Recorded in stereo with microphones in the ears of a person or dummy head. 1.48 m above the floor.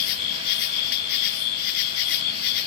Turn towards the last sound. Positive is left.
turn(degrees=50)  # may be behind; listen again after turning